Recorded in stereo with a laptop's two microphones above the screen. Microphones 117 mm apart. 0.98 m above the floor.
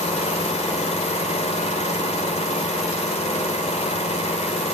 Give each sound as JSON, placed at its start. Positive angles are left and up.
{"t": 0.0, "sound": "an engine running", "side_deg": 70, "distance_m": 3.0}